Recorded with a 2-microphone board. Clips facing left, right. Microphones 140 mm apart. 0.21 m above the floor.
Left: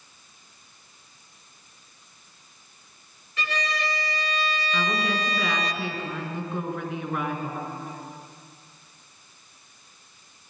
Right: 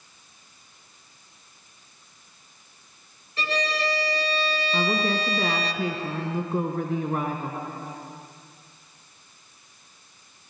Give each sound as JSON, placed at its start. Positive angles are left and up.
{"t": 3.4, "sound": "a violin", "side_deg": -35, "distance_m": 0.9}
{"t": 4.7, "sound": "a woman speaking", "side_deg": -40, "distance_m": 2.5}